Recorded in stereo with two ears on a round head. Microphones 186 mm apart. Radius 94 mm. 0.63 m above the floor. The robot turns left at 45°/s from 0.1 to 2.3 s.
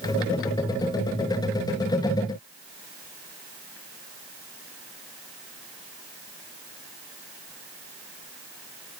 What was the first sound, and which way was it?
Only background noise.